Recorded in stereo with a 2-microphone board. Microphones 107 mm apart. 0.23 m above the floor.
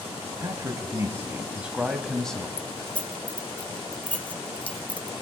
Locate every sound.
0.4 s a man speaking: 40° right (ahead or behind), 1.2 m; by 2.5 s 10° left (ahead or behind), 1.3 m
2.6 s keys jangling: 15° left (ahead or behind), 0.6 m